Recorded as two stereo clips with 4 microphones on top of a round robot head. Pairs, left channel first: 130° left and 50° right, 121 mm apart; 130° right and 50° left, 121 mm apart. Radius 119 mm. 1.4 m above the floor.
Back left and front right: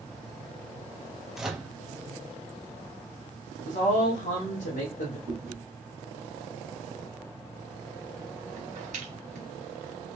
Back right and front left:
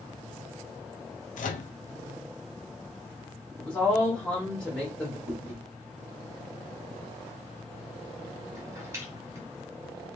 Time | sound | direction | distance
1.4 | a microwave | 135° right | 0.5 m
3.6 | a woman speaking | 145° left | 0.9 m
5.3 | chewing | 20° right | 1.0 m